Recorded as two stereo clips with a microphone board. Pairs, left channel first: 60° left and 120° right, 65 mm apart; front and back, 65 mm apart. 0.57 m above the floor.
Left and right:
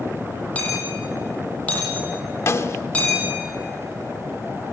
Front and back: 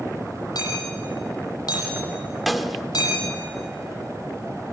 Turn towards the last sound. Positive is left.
turn(degrees=90)